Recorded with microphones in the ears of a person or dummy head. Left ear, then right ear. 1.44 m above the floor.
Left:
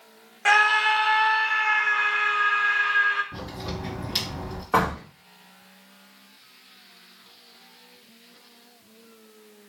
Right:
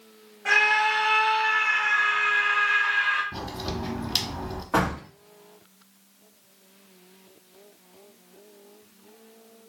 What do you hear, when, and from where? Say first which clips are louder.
0.5 s a scream: left 2 dB; 55° left (ahead or behind), 0.6 m; by 3.2 s 15° right (ahead or behind), 1.6 m
3.3 s a crack: right 2 dB; 20° right (ahead or behind), 1.2 m
4.7 s a door slam: left 2 dB; 15° left (ahead or behind), 1.7 m